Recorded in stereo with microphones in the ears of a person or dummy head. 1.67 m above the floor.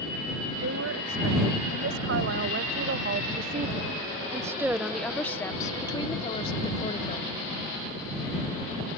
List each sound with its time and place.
0.6 s a woman speaking: 85° right; by 7.3 s 40° left (ahead or behind)